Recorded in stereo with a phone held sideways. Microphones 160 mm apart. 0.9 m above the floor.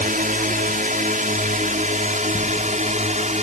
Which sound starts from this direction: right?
A drone, at 0.0 s.